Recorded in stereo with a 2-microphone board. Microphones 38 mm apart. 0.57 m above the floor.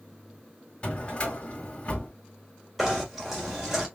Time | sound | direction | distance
0.8 | a drawer | 25° left (ahead or behind) | 1.5 m
2.8 | knocking | 5° right (ahead or behind) | 1.5 m